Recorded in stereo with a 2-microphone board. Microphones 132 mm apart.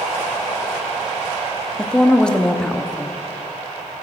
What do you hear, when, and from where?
1.8 s a woman speaking: 5° left (ahead or behind), 0.7 m